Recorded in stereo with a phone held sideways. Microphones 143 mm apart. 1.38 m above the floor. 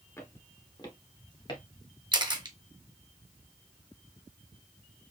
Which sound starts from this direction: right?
A camera shutter, at 2.1 s.